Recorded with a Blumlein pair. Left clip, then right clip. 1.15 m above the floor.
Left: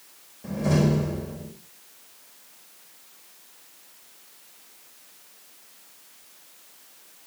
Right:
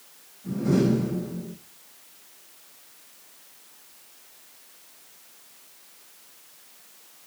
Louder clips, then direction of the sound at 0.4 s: Right 1 dB; 35° left.